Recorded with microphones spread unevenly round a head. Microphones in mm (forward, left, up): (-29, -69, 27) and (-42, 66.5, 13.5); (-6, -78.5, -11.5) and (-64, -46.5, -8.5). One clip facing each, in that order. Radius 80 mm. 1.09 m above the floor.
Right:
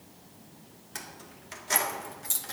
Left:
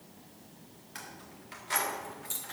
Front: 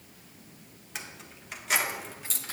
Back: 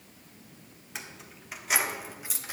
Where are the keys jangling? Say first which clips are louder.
Right 2 dB, front 1 dB; 120° right, 2 m; by 2.5 s 135° right, 1.1 m.